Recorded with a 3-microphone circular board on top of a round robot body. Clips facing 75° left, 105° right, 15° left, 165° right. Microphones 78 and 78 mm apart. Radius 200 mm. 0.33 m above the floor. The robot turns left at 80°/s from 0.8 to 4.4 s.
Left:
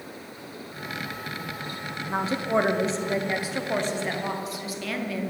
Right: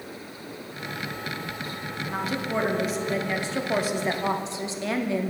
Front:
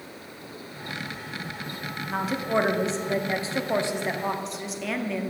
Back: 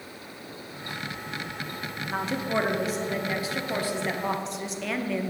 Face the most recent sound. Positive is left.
turn(degrees=-70)